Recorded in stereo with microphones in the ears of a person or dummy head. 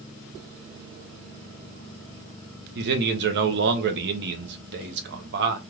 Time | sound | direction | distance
2.8 | a man speaking | 60° right (ahead or behind) | 0.8 m